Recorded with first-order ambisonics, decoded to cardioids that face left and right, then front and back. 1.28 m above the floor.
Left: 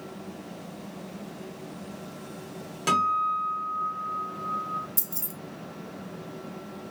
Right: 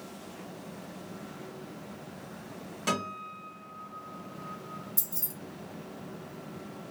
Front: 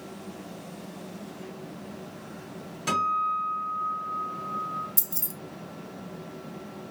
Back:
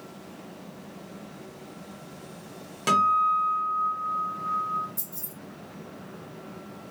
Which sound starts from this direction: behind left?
A guitar, at 2.9 s.